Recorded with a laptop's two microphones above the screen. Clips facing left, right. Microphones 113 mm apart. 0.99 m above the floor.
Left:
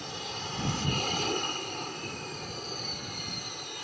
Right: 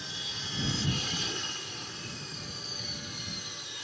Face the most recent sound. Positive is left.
turn(degrees=55)  # may be behind; listen again after turning